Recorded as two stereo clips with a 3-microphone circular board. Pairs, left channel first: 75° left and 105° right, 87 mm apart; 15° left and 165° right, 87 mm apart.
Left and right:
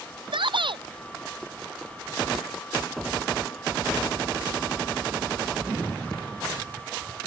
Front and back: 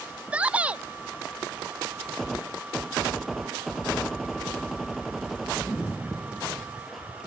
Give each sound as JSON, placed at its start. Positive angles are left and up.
{"t": 0.3, "sound": "a shout", "azimuth_deg": -90}